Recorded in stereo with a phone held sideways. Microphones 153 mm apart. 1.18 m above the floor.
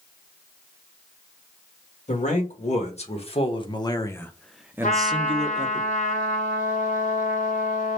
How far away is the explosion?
I don't hear an explosion.